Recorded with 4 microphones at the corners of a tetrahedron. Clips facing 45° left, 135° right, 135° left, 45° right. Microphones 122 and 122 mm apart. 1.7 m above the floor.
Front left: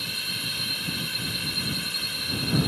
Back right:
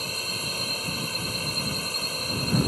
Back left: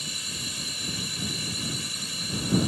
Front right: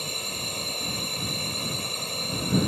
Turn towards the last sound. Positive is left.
turn(degrees=-85)